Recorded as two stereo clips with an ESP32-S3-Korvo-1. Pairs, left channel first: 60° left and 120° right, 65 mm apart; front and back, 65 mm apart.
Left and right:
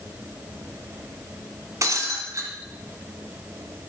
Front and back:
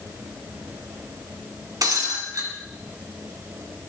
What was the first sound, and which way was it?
Breaking glass, 155° right.